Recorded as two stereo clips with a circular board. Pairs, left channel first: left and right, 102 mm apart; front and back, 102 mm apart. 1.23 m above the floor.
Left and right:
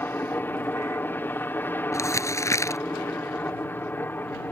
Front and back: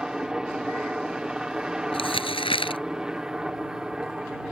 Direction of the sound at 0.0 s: 110° left.